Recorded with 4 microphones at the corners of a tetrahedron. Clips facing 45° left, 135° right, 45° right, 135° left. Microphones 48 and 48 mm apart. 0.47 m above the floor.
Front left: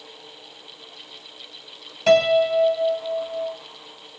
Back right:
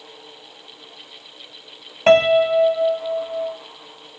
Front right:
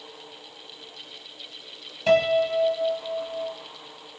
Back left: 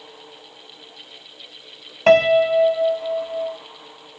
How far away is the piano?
About 1.0 m.